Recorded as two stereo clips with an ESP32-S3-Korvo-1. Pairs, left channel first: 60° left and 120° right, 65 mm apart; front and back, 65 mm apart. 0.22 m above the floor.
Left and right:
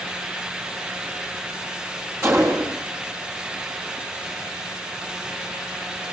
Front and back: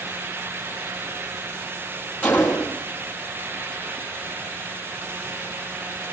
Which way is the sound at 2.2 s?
70° right.